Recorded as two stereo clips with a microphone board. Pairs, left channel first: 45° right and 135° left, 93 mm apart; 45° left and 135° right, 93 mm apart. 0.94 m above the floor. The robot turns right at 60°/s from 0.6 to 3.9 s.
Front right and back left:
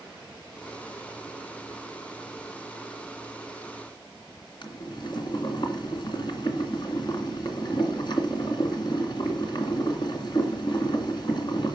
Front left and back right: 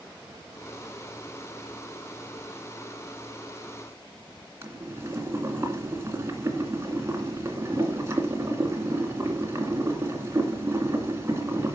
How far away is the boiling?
About 2.5 m.